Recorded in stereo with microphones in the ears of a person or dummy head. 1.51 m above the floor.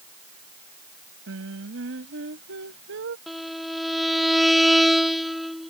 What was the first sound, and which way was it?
Singing, 70° right (ahead or behind).